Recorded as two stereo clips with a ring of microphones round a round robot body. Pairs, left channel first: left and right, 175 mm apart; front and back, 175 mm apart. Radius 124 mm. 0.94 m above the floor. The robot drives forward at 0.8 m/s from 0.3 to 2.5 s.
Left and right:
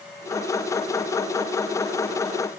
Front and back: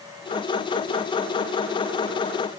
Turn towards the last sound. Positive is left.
No sound to turn to.